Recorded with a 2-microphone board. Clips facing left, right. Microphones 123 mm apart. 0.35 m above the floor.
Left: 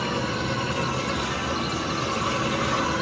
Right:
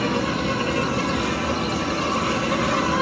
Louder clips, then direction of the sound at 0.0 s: Right 4 dB; 75° right (ahead or behind).